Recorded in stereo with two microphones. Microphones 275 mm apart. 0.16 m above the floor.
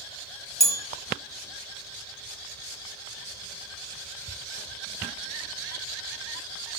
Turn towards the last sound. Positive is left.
turn(degrees=-70)  # may be behind; listen again after turning